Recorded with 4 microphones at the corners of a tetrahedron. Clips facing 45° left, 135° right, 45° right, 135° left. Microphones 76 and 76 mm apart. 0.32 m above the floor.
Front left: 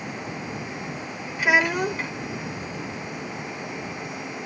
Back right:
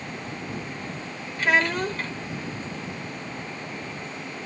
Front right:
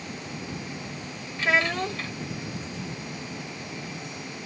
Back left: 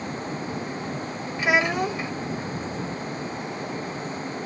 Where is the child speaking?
100° left.